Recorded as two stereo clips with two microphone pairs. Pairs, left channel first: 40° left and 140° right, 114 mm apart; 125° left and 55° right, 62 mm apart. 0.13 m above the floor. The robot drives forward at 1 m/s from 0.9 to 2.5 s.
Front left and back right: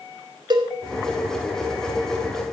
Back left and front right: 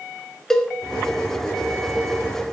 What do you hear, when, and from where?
0.5 s a cowbell: 160° right, 1.6 m